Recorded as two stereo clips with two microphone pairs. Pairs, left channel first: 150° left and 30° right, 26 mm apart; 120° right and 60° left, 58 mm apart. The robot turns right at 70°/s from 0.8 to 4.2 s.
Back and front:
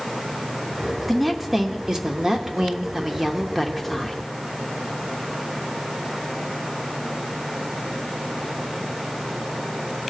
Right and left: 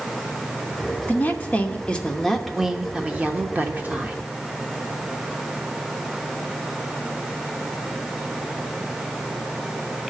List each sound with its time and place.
1.1 s a woman speaking: 125° right, 0.9 m; by 4.2 s 90° left, 0.9 m